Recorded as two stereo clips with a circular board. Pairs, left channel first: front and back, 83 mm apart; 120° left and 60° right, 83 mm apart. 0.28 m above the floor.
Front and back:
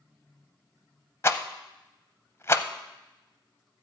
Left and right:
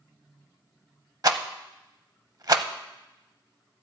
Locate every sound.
1.2 s a rattle: 45° right, 0.7 m